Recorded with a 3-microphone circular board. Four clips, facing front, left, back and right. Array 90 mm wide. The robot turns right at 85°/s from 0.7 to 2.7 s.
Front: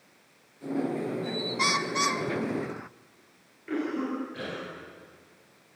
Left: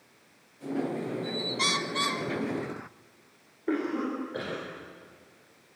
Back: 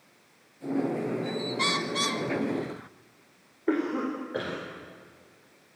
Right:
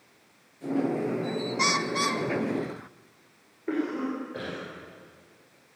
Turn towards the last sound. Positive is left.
turn(degrees=170)